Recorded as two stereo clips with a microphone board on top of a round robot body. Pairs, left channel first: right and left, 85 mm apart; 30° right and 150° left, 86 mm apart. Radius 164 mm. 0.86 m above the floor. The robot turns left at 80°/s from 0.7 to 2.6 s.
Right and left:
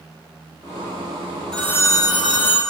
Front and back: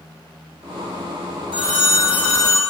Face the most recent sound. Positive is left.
turn(degrees=-95)